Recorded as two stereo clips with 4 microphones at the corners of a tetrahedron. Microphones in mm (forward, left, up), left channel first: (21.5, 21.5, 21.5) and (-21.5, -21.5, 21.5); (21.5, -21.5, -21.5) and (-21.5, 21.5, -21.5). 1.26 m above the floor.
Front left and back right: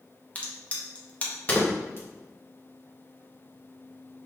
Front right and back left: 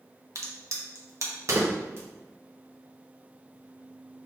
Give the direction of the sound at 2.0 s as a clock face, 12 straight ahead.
9 o'clock.